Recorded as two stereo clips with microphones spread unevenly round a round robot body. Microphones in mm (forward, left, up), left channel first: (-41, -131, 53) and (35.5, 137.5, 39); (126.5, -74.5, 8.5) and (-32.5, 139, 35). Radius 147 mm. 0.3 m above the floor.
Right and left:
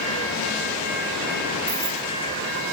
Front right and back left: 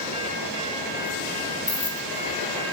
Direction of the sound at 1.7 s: 10° left.